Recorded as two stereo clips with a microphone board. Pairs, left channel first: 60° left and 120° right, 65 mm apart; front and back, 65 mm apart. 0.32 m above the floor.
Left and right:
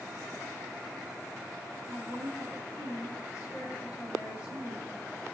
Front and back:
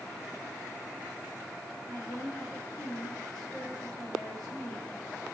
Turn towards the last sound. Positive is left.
turn(degrees=80)